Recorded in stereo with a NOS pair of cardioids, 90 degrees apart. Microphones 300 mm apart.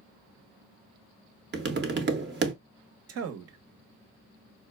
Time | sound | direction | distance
1.5 | tapping | 35° right | 1.0 m
3.1 | a man speaking | 55° right | 1.1 m